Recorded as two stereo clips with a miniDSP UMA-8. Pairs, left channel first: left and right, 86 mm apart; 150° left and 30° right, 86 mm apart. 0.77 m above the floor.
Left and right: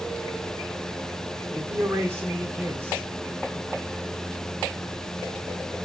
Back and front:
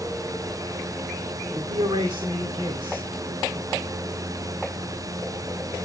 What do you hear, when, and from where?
1.5 s a man speaking: 30° right, 2 m